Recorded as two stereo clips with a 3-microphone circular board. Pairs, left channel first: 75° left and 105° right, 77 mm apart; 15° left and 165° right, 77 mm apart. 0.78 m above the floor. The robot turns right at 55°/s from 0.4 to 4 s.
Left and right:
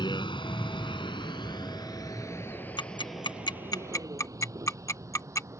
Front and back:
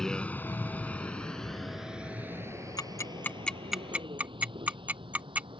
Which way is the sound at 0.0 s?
100° left.